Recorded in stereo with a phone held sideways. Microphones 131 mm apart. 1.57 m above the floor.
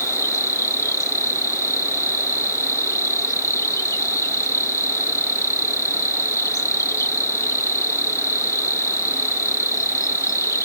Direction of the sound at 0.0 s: 25° left (ahead or behind).